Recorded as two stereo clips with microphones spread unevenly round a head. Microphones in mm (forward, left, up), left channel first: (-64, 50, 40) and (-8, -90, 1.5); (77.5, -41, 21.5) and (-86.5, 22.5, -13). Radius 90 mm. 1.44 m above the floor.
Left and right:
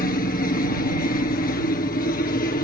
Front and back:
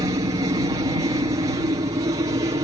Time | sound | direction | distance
0.0 | a helicopter | 105° left | ?